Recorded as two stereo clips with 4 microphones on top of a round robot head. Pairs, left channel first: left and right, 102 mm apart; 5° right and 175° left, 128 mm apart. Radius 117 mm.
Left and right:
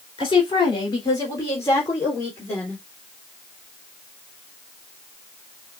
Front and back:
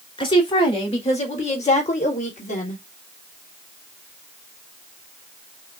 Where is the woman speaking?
40° left, 2.5 m; by 2.8 s 10° left, 2.5 m.